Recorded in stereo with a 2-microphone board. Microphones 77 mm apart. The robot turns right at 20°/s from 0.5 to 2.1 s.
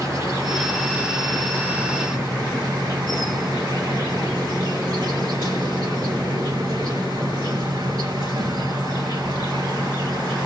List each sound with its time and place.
0.0 s an insect: 130° right, 1.9 m; by 10.5 s 95° right, 1.9 m